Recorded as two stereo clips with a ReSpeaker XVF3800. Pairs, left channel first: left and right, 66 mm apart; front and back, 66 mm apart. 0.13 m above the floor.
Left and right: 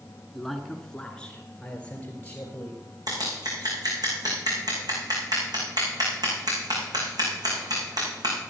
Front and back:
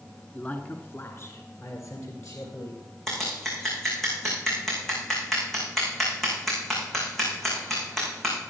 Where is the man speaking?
Straight ahead, 1.1 m; by 2.8 s 25° left, 2.5 m.